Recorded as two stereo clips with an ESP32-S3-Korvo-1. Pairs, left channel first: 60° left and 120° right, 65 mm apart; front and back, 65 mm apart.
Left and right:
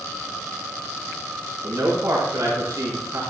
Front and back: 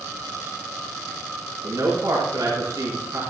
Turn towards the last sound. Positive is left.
turn(degrees=-160)